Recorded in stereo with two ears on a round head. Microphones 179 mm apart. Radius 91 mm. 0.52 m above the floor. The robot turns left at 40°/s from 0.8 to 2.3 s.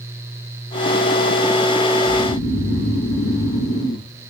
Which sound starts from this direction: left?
Snoring, at 2.0 s.